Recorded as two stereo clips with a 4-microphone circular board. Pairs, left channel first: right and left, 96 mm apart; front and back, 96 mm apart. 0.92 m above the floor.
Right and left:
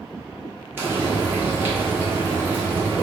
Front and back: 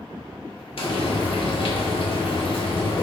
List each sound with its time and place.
0.8 s frying: 20° left, 1.0 m